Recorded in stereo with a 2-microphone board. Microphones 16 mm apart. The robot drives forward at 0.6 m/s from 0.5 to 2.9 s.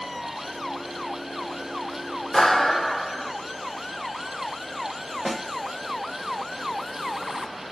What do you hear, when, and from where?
2.3 s a clap: 25° left (ahead or behind), 2 m
5.2 s a snare drum: 5° left (ahead or behind), 2.5 m